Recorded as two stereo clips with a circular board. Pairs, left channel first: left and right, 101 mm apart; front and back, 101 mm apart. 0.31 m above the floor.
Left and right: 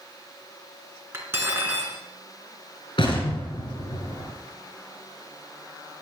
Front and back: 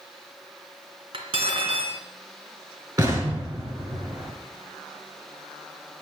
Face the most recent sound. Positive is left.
turn(degrees=125)